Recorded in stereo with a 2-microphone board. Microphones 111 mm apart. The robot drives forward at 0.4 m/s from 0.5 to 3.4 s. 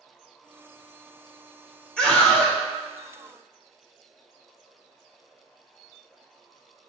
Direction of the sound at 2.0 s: 5° left (ahead or behind).